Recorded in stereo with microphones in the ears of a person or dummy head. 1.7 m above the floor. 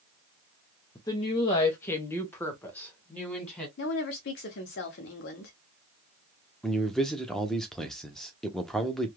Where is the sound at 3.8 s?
45° left (ahead or behind), 0.8 m.